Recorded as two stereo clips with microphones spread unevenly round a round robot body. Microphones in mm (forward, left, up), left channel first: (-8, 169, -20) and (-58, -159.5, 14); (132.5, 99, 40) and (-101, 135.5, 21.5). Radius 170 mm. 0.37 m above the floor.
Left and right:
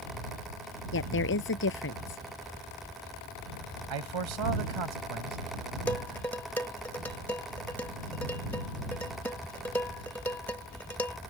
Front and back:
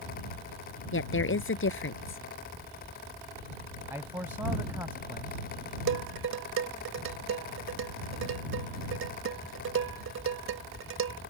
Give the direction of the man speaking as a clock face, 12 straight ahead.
4 o'clock.